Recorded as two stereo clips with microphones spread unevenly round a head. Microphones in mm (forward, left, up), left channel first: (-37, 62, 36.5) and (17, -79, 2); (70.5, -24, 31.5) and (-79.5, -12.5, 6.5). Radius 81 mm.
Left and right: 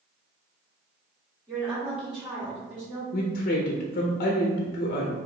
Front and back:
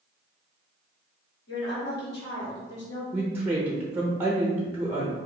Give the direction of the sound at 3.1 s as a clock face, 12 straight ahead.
8 o'clock.